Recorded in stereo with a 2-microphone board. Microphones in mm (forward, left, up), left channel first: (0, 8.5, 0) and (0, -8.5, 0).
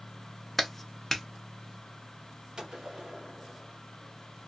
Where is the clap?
5° left (ahead or behind), 0.7 m.